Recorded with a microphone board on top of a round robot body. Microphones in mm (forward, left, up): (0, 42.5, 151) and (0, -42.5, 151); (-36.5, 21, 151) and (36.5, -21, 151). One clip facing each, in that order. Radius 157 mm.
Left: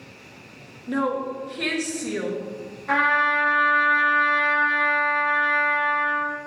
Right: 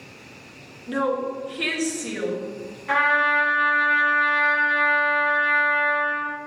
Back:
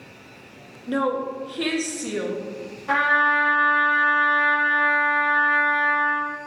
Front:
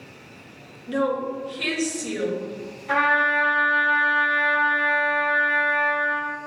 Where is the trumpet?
160° left, 1.4 m.